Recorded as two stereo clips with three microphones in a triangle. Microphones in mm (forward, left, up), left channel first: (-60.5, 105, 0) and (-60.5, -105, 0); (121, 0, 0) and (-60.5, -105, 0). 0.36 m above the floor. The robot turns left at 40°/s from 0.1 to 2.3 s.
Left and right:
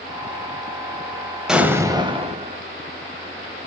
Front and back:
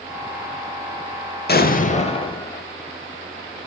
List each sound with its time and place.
1.5 s an explosion: 5° right, 1.0 m; by 2.6 s 35° right, 1.0 m